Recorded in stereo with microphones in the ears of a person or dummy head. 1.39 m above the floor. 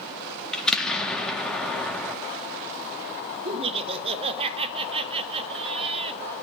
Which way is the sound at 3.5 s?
30° right (ahead or behind).